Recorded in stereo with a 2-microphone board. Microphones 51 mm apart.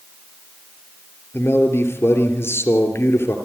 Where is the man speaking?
55° left (ahead or behind), 3 m.